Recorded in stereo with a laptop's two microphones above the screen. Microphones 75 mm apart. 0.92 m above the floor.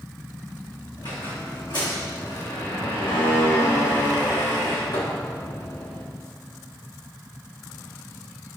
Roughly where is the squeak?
Left.